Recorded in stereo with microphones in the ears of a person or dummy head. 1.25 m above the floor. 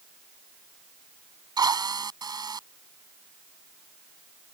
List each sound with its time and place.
1.6 s a drill: 20° right (ahead or behind)